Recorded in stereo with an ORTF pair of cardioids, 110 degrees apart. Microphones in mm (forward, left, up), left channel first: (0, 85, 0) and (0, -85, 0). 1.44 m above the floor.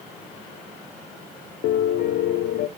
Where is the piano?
65° left, 0.6 m.